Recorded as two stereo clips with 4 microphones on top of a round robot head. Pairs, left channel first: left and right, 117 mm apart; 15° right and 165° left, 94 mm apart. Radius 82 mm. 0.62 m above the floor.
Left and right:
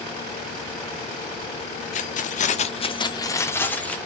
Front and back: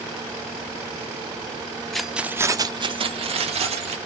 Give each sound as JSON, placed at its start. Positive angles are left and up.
{"t": 1.9, "sound": "keys jangling", "azimuth_deg": 75, "distance_m": 0.7}